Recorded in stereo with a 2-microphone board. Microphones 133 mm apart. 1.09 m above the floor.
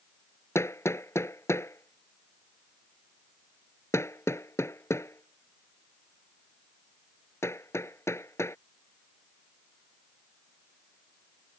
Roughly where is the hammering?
Centre.